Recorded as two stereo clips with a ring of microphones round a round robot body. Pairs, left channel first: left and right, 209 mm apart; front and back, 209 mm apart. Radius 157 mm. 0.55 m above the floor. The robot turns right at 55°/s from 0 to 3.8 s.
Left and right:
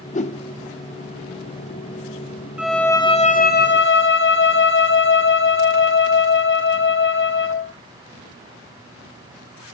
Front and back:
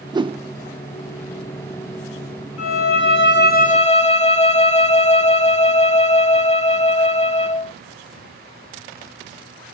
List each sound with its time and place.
0.1 s a whoosh: 120° left, 0.7 m; by 0.4 s 135° left, 0.7 m
2.6 s a violin: 5° right, 1.4 m; by 7.7 s 60° left, 1.4 m